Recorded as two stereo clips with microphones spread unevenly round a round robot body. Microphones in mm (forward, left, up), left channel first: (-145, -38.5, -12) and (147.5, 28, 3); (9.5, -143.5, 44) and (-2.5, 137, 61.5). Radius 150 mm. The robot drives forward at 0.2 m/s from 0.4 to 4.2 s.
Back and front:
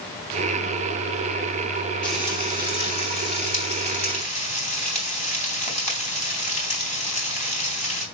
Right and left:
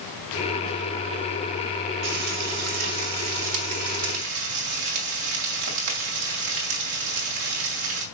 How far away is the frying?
About 2.5 m.